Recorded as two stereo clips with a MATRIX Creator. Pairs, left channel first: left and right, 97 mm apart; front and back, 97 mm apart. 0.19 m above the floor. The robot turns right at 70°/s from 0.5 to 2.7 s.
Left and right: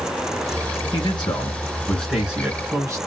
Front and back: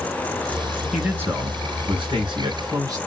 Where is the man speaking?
95° left, 3 m; by 3.0 s 140° right, 3 m.